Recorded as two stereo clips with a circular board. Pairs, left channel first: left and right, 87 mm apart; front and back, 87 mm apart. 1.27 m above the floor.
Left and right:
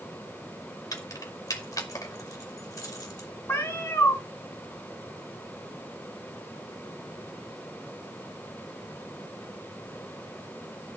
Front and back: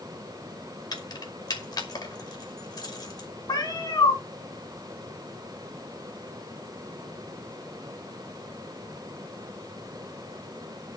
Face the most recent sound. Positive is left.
turn(degrees=40)